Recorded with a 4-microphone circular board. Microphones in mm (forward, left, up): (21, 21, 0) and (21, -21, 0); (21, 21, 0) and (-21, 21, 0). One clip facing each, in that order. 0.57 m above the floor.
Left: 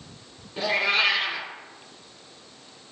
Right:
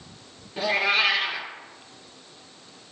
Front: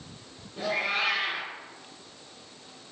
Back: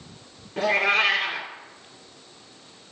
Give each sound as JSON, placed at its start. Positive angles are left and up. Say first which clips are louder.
{"t": 0.6, "sound": "a cat meowing", "louder": "right 1 dB, back 7 dB", "azimuth_deg": -170, "distance_m": 2.0}